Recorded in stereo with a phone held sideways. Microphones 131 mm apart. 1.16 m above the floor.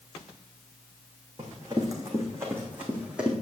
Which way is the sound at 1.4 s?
35° right (ahead or behind).